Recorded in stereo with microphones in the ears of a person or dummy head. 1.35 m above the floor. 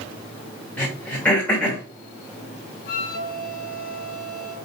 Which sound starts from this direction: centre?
Throat clearing, at 0.8 s.